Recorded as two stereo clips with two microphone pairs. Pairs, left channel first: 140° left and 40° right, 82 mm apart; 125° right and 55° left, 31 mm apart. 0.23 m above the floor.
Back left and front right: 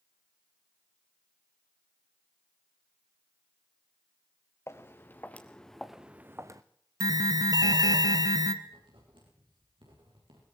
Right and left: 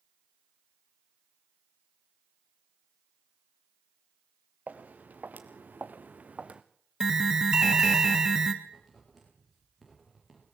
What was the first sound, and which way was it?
Footsteps, 80° left.